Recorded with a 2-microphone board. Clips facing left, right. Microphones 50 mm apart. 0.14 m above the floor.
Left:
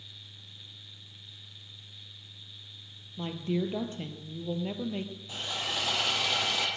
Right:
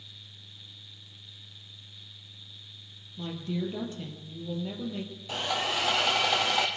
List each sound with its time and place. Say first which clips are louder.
3.2 s a woman speaking: left 2 dB; 35° left (ahead or behind), 3 m
5.3 s sawing: right 6 dB; 70° right (ahead or behind), 2.5 m